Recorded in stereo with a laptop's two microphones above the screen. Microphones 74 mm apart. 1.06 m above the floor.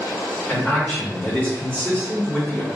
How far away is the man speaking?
About 1.5 m.